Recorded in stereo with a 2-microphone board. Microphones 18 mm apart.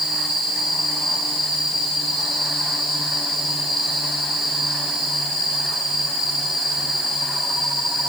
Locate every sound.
Only background noise.